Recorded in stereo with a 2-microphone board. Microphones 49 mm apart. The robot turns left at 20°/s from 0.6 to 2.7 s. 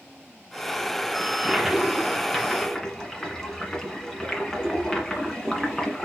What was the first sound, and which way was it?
A toilet flushing, 165° right.